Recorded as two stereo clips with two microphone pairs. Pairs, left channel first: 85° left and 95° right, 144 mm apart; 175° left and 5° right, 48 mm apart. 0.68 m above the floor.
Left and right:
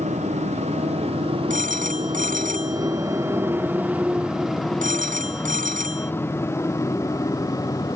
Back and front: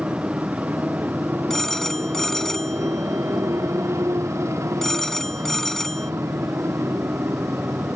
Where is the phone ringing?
105° right.